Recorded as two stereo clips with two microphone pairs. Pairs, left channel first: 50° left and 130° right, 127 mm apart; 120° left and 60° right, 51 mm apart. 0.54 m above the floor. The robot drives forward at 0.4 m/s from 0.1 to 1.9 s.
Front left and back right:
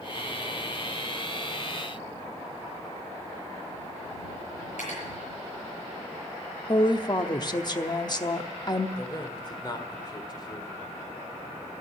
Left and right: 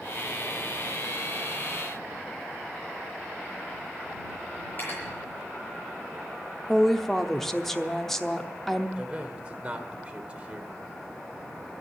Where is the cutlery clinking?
70° left, 7 m.